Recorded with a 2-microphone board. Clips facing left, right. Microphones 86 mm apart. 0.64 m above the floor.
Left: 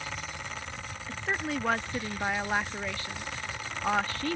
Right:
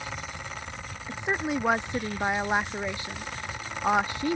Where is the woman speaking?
20° right (ahead or behind).